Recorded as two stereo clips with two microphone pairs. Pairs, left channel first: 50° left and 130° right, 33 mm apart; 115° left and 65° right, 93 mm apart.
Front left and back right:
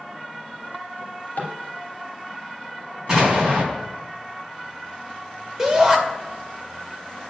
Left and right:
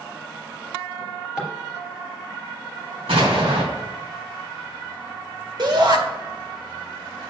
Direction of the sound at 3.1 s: 60° right.